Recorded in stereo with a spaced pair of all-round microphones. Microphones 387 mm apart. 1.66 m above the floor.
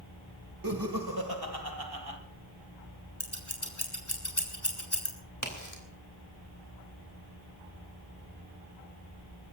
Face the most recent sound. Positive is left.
turn(degrees=50)  # may be behind; listen again after turning